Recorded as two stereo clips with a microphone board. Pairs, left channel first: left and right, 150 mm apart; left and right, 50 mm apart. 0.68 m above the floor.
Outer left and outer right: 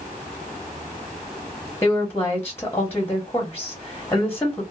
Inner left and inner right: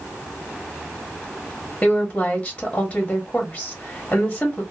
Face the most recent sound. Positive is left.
turn(degrees=15)  # may be behind; listen again after turning